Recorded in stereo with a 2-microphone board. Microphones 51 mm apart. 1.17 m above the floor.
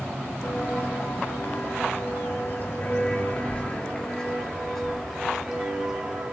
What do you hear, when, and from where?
0.4 s footsteps: 60° left (ahead or behind), 2 m; by 6.3 s 15° right (ahead or behind), 1.9 m